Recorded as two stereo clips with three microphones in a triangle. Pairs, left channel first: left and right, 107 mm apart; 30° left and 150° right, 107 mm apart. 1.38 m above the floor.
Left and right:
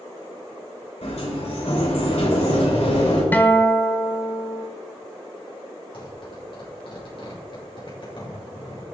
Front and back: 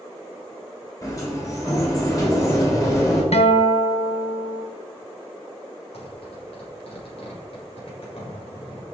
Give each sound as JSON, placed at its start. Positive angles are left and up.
{"t": 1.0, "sound": "a sliding door", "azimuth_deg": 85, "distance_m": 6.0}
{"t": 3.3, "sound": "a guitar", "azimuth_deg": 15, "distance_m": 1.6}
{"t": 5.9, "sound": "a zipper", "azimuth_deg": 50, "distance_m": 7.0}